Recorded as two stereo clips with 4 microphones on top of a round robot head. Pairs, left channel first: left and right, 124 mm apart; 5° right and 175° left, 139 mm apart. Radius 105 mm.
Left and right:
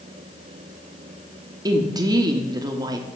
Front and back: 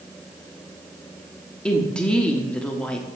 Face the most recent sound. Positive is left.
turn(degrees=-80)